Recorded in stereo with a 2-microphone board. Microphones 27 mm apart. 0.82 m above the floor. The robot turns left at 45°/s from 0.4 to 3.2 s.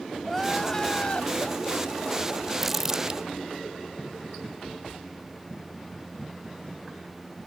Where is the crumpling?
5° right (ahead or behind); by 3.2 s 30° right (ahead or behind).